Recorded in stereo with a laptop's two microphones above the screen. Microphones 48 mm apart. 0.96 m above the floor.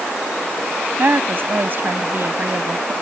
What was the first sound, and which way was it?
A woman speaking, 50° right (ahead or behind).